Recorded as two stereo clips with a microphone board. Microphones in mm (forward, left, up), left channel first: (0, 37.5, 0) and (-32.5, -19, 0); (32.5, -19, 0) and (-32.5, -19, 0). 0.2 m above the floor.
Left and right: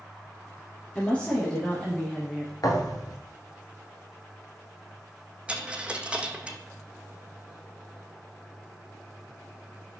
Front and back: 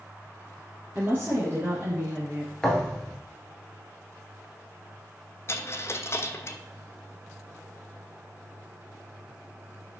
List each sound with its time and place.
0.9 s a woman speaking: 130° left, 2.5 m; by 2.5 s 145° left, 1.4 m
2.6 s a thud: 80° left, 1.3 m
5.5 s a dropped coin: 50° right, 0.6 m